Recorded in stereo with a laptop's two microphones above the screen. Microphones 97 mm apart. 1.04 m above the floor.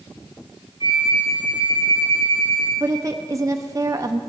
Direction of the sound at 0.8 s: 75° left (ahead or behind).